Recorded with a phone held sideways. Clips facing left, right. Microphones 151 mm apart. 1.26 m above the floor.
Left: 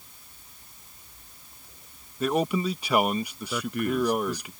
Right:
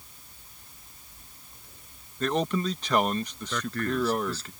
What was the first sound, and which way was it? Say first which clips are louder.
A man speaking: left 2 dB; 10° left (ahead or behind).